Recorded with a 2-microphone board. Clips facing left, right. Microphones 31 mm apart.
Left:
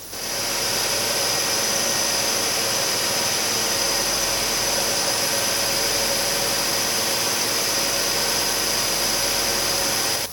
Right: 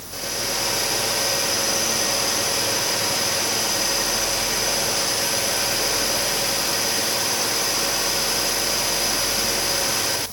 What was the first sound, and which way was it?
Only background noise.